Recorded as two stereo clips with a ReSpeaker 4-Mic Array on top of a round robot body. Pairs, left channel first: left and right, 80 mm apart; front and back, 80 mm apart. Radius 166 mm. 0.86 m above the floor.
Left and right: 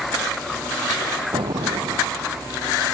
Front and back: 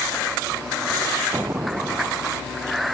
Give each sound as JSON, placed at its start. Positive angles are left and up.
{"t": 1.3, "sound": "an explosion", "azimuth_deg": -115}